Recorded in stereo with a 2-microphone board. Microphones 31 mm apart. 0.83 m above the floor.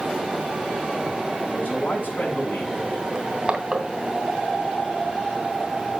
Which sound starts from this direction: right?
Crushing, at 3.1 s.